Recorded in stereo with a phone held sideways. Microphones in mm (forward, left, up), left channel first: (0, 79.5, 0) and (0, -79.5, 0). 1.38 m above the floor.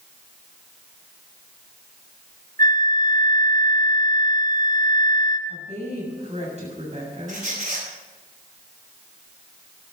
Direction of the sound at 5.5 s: 45° right (ahead or behind).